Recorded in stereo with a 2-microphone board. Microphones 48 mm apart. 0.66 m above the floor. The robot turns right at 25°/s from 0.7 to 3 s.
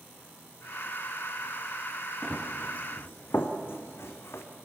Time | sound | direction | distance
2.2 | running footsteps | 10° left (ahead or behind) | 3 m